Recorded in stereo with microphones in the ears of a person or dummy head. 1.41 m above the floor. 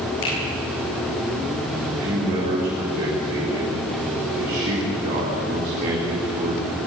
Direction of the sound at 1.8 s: 50° right (ahead or behind).